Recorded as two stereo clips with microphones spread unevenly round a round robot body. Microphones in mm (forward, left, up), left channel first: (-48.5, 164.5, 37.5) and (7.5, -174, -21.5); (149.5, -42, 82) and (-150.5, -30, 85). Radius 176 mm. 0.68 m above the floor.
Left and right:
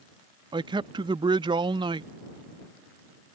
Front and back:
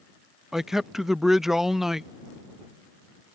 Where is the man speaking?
95° right.